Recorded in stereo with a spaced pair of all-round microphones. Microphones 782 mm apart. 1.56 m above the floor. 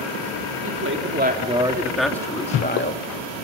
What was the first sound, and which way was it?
A woman speaking, 20° right (ahead or behind).